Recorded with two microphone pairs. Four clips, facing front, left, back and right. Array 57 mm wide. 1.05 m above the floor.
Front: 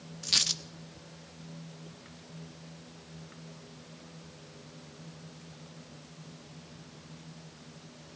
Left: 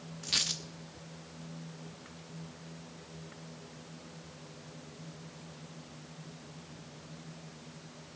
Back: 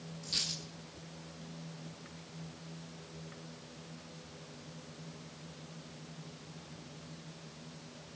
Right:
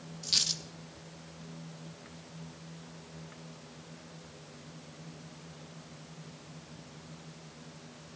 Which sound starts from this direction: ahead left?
A dropped coin, at 0.2 s.